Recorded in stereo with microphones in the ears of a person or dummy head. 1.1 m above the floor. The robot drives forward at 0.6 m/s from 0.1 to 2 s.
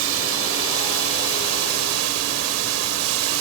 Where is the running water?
70° right (ahead or behind); by 3.4 s 90° right.